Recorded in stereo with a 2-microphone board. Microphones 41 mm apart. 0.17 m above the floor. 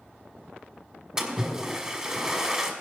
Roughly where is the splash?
Centre.